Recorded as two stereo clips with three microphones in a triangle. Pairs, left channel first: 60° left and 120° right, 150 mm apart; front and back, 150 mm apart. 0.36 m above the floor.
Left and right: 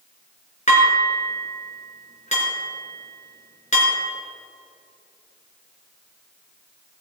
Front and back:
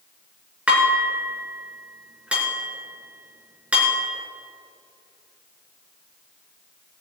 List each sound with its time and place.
0.7 s dishes clattering: 100° left, 3.5 m